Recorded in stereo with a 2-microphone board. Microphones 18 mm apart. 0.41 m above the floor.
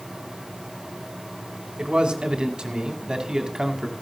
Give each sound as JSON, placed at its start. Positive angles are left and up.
{"t": 1.8, "sound": "a man speaking", "side_deg": -55, "distance_m": 3.0}